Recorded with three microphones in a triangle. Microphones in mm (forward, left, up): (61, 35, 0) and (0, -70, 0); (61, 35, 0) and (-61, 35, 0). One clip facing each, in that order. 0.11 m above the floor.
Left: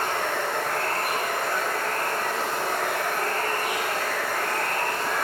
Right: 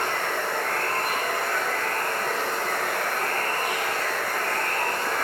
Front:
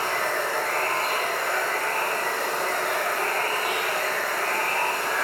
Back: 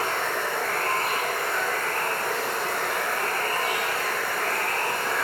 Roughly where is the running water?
Ahead.